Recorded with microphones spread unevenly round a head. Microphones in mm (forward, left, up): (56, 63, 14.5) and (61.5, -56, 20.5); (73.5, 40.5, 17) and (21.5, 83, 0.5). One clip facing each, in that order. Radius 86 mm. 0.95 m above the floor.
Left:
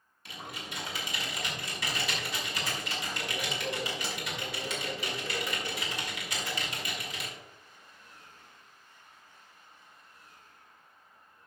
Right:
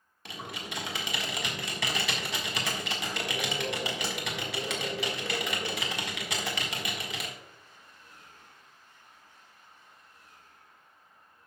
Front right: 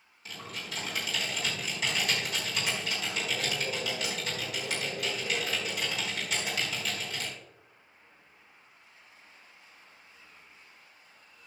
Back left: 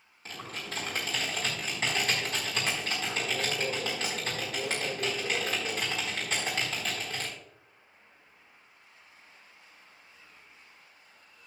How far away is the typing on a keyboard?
About 1.3 m.